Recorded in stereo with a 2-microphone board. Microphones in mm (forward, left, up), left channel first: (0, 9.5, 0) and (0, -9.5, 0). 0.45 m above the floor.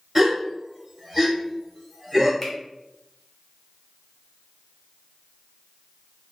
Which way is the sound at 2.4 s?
15° left (ahead or behind).